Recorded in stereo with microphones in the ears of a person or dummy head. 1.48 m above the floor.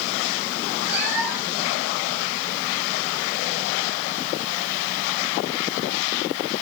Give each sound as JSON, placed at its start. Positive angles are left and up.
{"t": 0.9, "sound": "a cat meowing", "side_deg": -5, "distance_m": 6.5}